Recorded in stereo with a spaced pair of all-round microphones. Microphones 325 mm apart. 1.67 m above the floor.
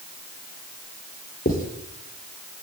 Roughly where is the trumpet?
No trumpet in this recording.